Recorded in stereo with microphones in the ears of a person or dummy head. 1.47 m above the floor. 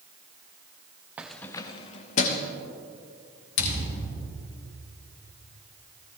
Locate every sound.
1.2 s keys jangling: 5° right (ahead or behind), 0.5 m; by 2.5 s 50° left (ahead or behind), 1.1 m
3.6 s a thud: 75° left (ahead or behind), 3.5 m